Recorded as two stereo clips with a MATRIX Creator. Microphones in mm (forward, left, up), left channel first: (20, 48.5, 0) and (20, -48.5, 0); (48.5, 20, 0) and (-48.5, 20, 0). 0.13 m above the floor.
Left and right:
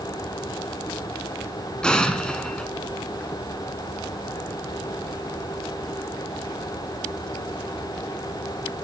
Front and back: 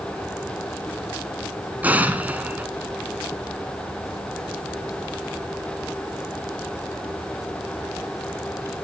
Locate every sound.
1.8 s an explosion: 155° left, 1.3 m